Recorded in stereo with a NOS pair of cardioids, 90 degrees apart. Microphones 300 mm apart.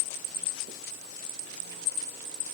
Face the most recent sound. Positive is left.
No sound to turn to.